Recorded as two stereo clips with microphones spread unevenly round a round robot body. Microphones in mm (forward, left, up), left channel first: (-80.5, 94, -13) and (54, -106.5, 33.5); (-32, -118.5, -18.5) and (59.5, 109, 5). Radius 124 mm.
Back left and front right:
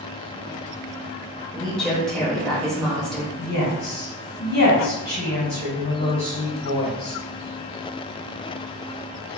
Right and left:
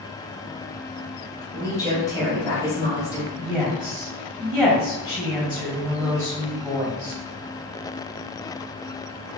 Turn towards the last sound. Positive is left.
turn(degrees=155)